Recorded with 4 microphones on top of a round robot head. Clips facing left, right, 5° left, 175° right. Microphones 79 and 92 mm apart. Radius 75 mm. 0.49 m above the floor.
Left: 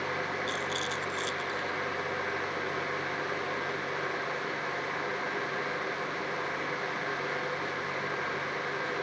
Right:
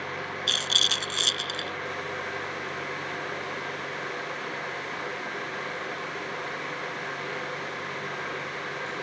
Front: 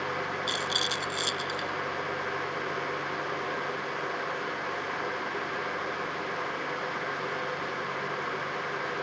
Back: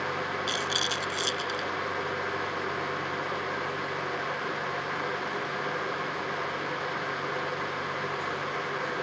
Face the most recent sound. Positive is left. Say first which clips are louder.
# right 1 dB, back 1 dB
turn(degrees=-80)